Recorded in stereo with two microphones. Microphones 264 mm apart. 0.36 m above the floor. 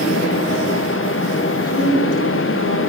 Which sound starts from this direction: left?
A woman speaking, at 1.6 s.